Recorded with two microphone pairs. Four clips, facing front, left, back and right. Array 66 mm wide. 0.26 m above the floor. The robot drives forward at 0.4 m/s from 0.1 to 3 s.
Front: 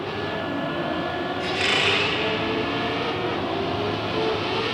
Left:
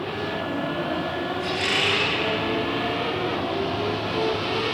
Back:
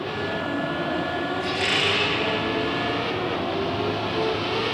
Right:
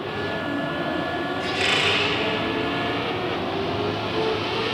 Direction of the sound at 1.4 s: 25° right.